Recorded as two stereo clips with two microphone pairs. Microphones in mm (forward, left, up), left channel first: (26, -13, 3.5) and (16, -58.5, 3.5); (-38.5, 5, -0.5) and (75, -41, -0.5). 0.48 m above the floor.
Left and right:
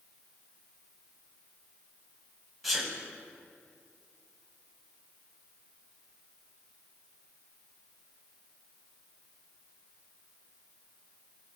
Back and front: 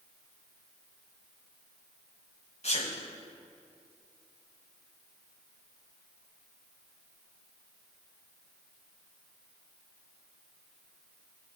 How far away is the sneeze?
About 2.5 m.